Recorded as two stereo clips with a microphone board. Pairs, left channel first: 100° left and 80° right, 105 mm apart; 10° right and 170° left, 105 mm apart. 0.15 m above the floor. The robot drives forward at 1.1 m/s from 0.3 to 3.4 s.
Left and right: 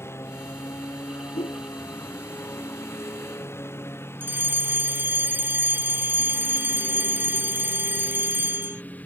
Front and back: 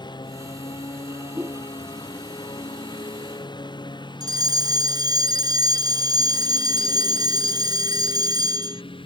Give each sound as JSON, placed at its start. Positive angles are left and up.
{"t": 0.0, "sound": "a lawn mower", "azimuth_deg": 35}
{"t": 1.3, "sound": "a whoosh", "azimuth_deg": 90}
{"t": 4.2, "sound": "a fire alarm", "azimuth_deg": -145}